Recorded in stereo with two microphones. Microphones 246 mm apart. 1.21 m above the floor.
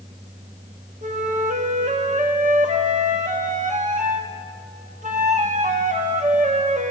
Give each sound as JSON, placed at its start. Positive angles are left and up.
{"t": 1.0, "sound": "a flute", "side_deg": -30, "distance_m": 0.9}